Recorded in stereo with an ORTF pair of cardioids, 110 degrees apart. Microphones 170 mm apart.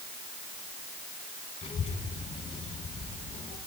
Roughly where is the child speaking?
Ahead left.